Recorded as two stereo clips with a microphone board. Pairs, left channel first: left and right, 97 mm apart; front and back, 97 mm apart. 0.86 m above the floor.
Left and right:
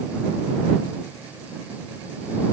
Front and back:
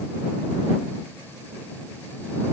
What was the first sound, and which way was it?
Only background noise.